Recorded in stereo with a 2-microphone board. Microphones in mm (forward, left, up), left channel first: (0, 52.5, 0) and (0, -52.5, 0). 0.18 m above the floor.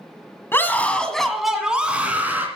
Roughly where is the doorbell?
No doorbell in this recording.